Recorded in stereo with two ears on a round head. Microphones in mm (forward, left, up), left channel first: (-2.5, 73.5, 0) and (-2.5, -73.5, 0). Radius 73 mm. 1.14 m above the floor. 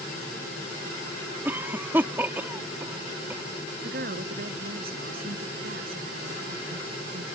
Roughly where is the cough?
Centre.